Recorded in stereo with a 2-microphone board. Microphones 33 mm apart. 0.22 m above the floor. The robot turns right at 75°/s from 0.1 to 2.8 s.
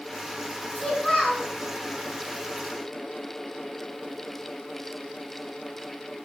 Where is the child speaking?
145° left, 0.9 m; by 1.5 s 160° right, 0.9 m.